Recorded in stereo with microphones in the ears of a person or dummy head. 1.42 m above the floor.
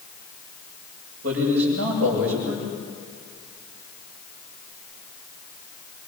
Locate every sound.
1.2 s a man speaking: 85° right, 7.5 m